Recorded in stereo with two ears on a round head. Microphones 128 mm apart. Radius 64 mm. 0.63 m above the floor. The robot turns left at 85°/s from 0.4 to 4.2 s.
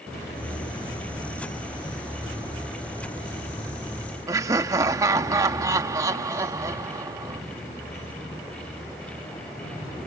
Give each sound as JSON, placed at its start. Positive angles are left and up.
{"t": 4.3, "sound": "laughter", "side_deg": -20}